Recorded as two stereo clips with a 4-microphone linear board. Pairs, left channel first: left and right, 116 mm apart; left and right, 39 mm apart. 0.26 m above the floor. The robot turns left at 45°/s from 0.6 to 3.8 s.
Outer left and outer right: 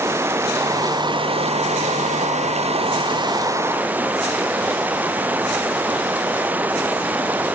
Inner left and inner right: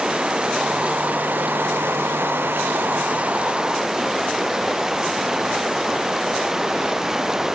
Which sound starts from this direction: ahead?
Running water, at 0.0 s.